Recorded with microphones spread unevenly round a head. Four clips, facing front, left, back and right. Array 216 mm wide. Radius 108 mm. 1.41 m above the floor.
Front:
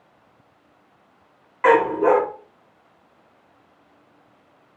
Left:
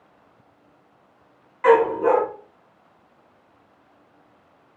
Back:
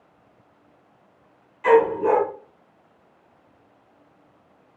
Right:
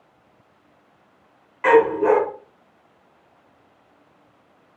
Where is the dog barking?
20° right, 1.6 m.